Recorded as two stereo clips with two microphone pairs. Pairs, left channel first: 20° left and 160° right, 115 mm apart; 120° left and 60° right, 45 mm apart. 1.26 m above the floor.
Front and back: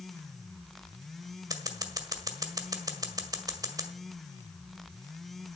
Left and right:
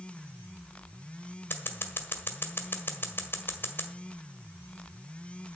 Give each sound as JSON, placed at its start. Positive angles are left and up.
{"t": 1.5, "sound": "scissors", "azimuth_deg": 150, "distance_m": 1.7}